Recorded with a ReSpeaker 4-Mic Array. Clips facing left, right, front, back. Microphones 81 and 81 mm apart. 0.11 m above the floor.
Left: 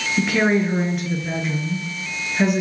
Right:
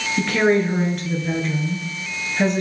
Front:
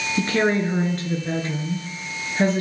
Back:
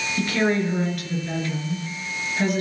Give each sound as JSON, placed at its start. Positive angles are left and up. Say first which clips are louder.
{"t": 0.2, "sound": "a woman speaking", "louder": "right 1 dB, front 1 dB", "azimuth_deg": 10, "distance_m": 1.4}